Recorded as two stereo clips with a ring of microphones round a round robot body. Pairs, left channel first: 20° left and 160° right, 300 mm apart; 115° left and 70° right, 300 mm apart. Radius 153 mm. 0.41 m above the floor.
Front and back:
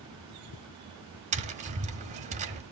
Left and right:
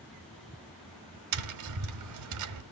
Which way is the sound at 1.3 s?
90° right.